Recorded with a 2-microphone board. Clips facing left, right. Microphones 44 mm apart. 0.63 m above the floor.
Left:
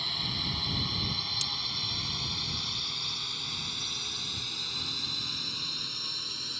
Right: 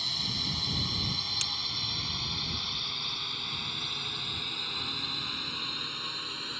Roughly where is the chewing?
No chewing in this recording.